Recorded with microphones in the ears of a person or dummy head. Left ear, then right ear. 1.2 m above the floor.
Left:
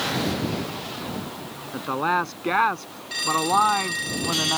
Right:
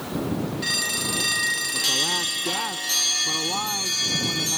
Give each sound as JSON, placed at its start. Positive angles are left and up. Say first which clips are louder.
{"t": 1.7, "sound": "a woman speaking", "louder": "left 4 dB", "side_deg": 35}